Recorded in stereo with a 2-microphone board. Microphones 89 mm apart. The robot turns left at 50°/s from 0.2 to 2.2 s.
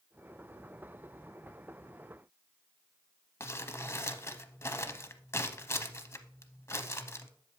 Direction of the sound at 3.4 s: 30° left (ahead or behind).